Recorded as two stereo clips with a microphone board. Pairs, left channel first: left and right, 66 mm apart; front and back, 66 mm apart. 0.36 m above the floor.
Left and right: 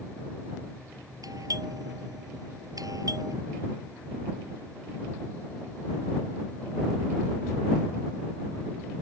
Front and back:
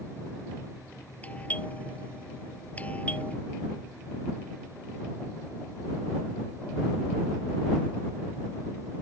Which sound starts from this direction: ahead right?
A doorbell, at 1.2 s.